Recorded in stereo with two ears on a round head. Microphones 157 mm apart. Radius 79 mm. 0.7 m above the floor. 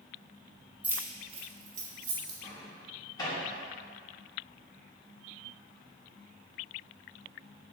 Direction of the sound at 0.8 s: 10° right (ahead or behind).